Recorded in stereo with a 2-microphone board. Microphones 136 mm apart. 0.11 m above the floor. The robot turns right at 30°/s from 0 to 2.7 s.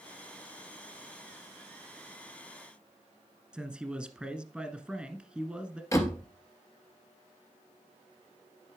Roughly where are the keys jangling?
I don't hear keys jangling.